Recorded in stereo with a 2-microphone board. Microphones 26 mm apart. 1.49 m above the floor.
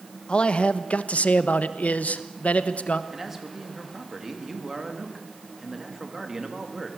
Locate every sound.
0.3 s a man speaking: 40° left (ahead or behind), 1.1 m; by 3.0 s 60° left (ahead or behind), 1.4 m
3.1 s a man speaking: 15° right (ahead or behind), 2.5 m